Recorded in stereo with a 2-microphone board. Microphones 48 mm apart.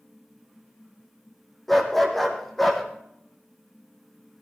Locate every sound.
1.7 s a dog barking: 5° left (ahead or behind), 3.5 m